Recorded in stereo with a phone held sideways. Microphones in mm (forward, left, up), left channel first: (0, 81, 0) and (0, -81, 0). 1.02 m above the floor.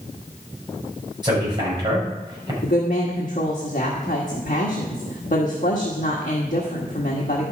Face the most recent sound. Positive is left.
turn(degrees=50)  # may be behind; listen again after turning